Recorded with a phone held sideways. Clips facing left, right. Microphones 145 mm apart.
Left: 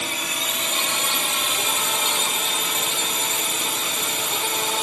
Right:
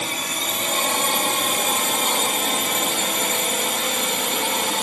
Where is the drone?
45° right (ahead or behind); by 4.8 s 65° right (ahead or behind).